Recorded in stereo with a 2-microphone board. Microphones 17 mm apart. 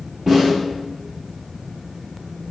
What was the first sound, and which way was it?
A snare drum, 20° right (ahead or behind).